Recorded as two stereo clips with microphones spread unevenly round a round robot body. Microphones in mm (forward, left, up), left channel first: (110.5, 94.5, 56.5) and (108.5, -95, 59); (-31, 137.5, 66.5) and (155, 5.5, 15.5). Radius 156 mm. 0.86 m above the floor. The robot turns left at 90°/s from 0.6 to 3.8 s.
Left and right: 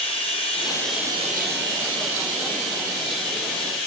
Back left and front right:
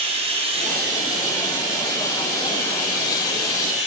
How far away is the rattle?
No rattle in this recording.